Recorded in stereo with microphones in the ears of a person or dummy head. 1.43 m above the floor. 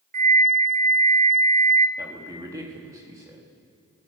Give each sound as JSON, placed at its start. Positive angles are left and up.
{"t": 0.1, "sound": "a flute", "side_deg": -45, "distance_m": 1.4}
{"t": 2.0, "sound": "a man speaking", "side_deg": -15, "distance_m": 3.5}